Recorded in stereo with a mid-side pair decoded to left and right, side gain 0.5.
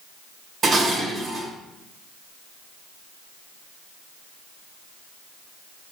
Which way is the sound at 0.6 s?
40° right.